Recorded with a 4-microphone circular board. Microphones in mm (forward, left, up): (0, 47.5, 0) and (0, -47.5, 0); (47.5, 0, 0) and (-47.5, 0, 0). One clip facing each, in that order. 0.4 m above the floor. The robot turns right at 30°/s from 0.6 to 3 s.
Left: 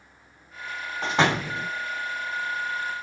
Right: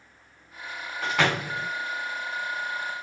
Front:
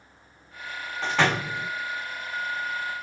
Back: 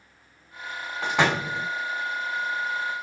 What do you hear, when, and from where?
1.0 s a door slam: 115° left, 0.5 m; by 1.7 s 135° left, 0.5 m